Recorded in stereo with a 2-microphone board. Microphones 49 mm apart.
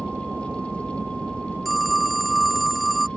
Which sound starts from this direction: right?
A helicopter, at 0.0 s.